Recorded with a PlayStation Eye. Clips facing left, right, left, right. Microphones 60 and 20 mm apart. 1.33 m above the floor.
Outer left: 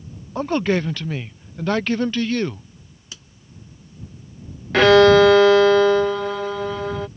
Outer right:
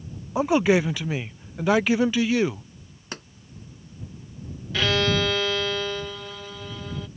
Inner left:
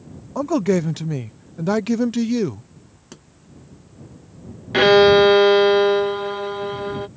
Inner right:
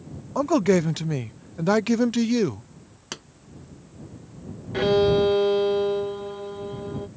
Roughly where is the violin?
Left.